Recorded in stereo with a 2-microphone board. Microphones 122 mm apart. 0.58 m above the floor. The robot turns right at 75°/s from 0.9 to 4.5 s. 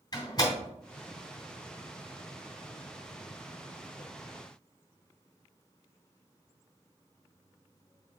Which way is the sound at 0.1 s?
30° left (ahead or behind).